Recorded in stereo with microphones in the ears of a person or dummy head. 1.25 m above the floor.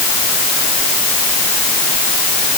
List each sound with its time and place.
Only background noise.